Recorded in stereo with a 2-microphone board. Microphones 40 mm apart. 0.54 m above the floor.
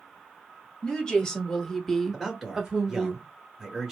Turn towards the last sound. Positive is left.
turn(degrees=-5)  # may be behind; listen again after turning